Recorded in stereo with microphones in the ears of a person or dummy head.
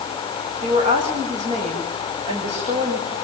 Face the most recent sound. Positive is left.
turn(degrees=-30)  # may be behind; listen again after turning